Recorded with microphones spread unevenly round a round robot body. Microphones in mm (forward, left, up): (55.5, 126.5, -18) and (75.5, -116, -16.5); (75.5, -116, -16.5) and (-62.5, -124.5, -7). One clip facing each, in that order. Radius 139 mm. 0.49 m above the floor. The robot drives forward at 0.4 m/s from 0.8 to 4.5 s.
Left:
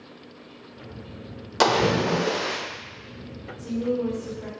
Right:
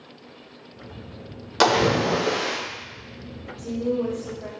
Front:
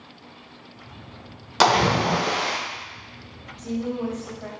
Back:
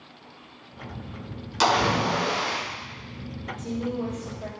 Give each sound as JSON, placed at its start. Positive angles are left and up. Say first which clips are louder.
{"t": 1.6, "sound": "a splash", "louder": "right 1 dB, front 3 dB", "azimuth_deg": 0, "distance_m": 0.9}
{"t": 3.6, "sound": "a woman speaking", "louder": "right 1 dB, front 2 dB", "azimuth_deg": -120, "distance_m": 1.9}